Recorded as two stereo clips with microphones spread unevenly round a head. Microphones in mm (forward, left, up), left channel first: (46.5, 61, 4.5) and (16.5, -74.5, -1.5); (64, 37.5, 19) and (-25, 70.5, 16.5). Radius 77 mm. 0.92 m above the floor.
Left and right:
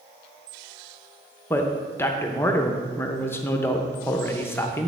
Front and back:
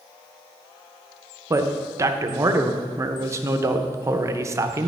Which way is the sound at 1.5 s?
145° left.